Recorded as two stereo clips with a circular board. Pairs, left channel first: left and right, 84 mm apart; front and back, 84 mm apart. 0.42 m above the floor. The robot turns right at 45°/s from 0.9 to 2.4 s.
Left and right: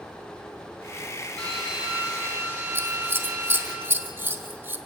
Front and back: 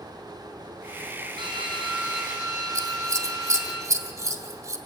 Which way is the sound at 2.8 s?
145° right.